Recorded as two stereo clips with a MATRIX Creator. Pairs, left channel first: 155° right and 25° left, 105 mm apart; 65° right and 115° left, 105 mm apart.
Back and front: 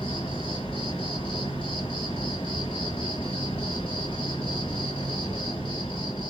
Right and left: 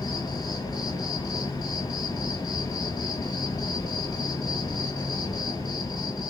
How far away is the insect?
About 1.1 m.